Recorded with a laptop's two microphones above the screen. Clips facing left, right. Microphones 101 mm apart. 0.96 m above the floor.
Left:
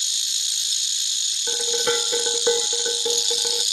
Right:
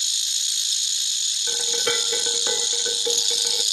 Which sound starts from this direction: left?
Dishes clattering, at 1.5 s.